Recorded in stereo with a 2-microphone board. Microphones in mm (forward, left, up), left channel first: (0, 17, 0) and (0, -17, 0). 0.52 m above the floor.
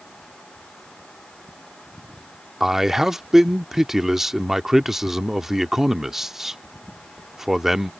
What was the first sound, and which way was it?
A man speaking, 10° right (ahead or behind).